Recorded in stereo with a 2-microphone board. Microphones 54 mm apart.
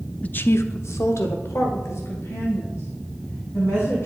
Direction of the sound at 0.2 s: 25° left (ahead or behind).